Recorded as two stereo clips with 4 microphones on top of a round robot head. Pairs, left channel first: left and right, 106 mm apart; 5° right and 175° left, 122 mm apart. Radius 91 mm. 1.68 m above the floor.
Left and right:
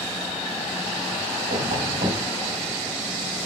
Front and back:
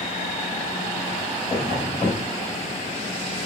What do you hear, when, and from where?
1.5 s tapping: 80° right, 3 m